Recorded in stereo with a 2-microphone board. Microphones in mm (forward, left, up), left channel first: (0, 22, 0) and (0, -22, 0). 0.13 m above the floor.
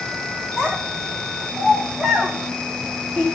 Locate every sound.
0.6 s a child speaking: 10° right (ahead or behind), 8.5 m; by 3.2 s 5° right (ahead or behind), 6.5 m